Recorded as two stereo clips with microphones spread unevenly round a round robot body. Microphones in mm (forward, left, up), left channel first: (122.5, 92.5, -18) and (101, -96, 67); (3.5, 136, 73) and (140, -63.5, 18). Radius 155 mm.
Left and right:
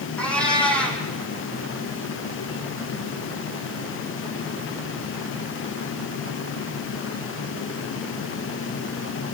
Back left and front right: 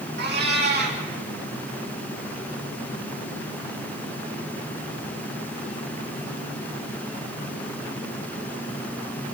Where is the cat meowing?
5° right, 5.5 m.